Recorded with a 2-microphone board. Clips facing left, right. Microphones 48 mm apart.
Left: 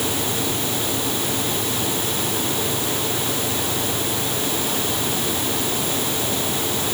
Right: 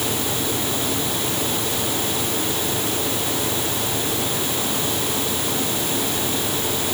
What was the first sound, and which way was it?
Only background noise.